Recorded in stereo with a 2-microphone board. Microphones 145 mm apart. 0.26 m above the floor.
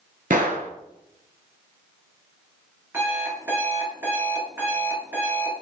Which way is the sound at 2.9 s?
15° right (ahead or behind).